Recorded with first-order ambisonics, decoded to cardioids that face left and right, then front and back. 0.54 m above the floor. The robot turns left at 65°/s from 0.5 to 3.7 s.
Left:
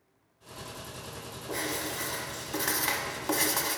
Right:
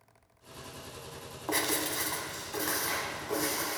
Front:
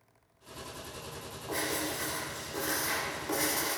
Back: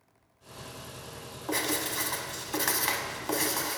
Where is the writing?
115° right, 0.9 m; by 3.8 s 100° left, 0.9 m.